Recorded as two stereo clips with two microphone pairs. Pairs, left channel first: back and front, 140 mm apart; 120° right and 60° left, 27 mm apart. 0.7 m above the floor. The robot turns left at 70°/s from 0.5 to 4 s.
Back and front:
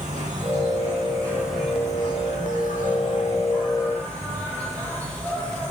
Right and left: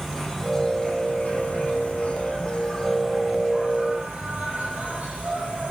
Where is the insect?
15° right, 6 m; by 5.7 s 100° left, 6 m.